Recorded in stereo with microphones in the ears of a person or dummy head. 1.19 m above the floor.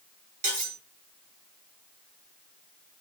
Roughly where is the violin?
No violin in this recording.